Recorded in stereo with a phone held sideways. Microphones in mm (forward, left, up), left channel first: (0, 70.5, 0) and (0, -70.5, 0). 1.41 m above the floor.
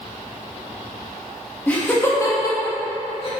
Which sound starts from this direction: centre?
Laughter, at 1.7 s.